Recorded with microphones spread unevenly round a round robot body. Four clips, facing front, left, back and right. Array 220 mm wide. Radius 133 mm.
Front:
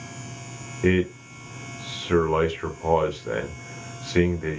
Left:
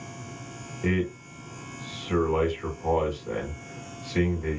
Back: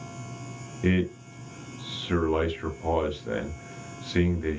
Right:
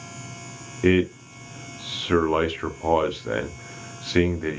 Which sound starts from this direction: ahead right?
A man speaking, at 0.8 s.